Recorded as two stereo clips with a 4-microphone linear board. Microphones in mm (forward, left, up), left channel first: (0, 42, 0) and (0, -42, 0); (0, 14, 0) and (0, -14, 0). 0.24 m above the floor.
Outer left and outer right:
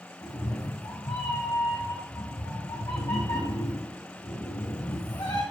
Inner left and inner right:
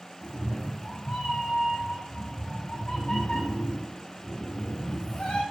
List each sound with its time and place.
0.2 s a cat meowing: 60° left (ahead or behind), 3.5 m